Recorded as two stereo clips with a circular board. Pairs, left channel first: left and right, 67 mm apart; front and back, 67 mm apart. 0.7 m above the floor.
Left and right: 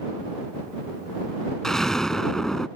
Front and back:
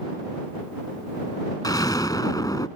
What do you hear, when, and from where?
1.6 s an explosion: 5° left